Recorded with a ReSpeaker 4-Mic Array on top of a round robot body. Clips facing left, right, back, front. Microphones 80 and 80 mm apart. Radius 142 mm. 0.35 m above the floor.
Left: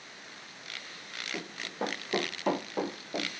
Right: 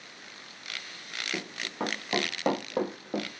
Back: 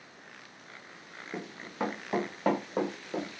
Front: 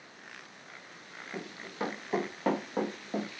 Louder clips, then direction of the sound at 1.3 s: Right 2 dB, back 2 dB; 105° right.